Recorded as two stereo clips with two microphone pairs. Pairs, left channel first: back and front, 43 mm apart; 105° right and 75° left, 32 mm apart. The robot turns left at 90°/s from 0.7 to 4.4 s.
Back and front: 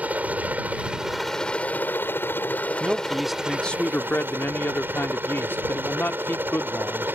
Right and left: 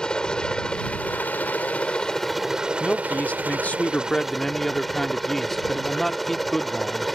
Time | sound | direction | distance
0.0 | a helicopter | 45° right | ?
2.8 | a man speaking | 40° right | ?